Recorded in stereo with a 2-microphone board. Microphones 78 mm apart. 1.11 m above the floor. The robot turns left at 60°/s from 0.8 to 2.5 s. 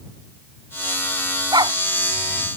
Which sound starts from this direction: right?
A dog barking, at 1.5 s.